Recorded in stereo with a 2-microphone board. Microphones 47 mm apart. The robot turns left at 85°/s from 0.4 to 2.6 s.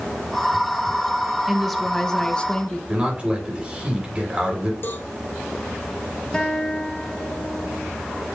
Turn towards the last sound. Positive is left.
turn(degrees=15)  # may be behind; listen again after turning